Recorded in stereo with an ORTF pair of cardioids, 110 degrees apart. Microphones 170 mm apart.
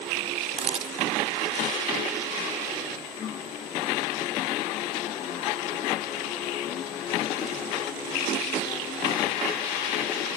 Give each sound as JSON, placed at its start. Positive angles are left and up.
{"t": 0.6, "sound": "a camera shutter", "azimuth_deg": -40}